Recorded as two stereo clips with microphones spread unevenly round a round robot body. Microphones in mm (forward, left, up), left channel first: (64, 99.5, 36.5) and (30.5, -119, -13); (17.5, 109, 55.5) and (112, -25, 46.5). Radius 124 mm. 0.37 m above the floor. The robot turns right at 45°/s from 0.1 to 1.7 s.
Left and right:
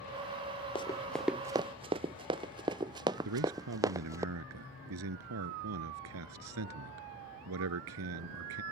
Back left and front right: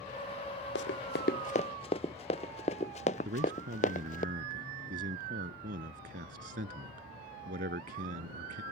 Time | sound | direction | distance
0.8 | running footsteps | 150° left | ?
3.2 | a man speaking | 100° right | ?